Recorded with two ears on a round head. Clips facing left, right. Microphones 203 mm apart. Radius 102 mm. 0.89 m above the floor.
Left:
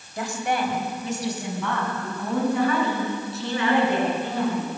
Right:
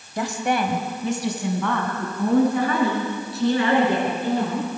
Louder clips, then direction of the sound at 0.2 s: Right 3 dB; 60° right (ahead or behind).